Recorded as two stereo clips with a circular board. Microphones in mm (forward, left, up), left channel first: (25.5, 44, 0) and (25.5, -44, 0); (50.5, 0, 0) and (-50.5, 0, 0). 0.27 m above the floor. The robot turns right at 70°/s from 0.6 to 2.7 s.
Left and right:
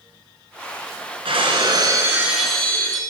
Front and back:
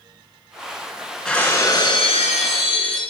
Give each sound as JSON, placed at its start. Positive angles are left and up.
{"t": 1.2, "sound": "breaking glass", "azimuth_deg": -90, "distance_m": 3.0}